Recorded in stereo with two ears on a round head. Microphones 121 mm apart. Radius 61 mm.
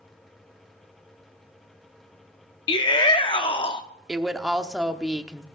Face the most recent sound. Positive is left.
turn(degrees=-5)  # may be behind; listen again after turning